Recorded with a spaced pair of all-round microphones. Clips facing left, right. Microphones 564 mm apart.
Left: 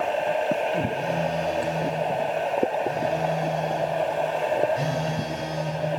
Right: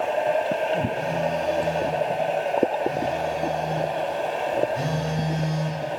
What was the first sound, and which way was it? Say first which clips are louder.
A phone buzzing: right 1 dB; 65° right (ahead or behind).